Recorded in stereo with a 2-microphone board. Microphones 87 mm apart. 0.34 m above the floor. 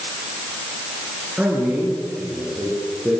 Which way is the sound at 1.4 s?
15° right (ahead or behind).